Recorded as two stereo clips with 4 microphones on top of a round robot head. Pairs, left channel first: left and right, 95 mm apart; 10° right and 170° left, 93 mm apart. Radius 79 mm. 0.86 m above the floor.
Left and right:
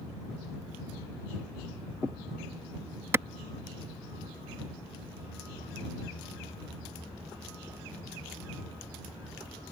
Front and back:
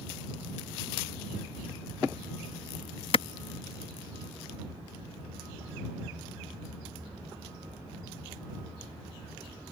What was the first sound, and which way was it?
A clap, 25° right.